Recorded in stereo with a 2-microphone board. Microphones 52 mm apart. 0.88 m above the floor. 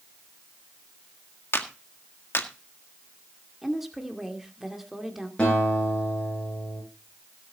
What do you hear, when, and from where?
1.5 s a clap: 50° left (ahead or behind), 1.7 m
3.6 s a woman speaking: 5° right (ahead or behind), 2 m
5.4 s a guitar: 20° left (ahead or behind), 9 m